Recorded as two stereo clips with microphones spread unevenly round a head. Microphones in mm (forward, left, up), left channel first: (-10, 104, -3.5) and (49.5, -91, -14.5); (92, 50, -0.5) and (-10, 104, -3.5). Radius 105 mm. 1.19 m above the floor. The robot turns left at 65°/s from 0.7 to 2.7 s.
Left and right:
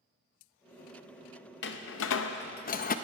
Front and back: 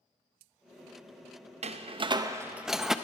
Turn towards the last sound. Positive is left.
turn(degrees=65)